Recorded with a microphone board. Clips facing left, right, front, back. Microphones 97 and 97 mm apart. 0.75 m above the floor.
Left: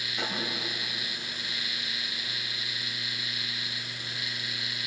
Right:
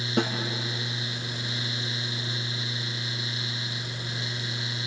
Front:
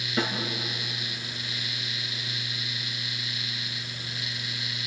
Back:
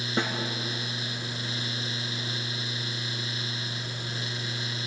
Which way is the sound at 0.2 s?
115° right.